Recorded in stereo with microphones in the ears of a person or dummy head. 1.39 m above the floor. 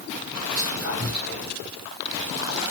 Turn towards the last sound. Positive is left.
turn(degrees=-85)